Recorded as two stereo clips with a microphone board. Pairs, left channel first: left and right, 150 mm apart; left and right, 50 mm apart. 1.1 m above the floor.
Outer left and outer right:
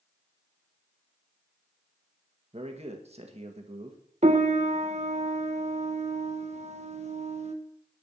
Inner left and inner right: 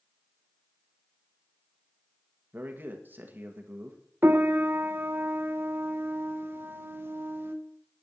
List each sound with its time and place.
2.5 s a man speaking: 45° right (ahead or behind), 1.7 m
4.2 s a piano: 50° right (ahead or behind), 1.0 m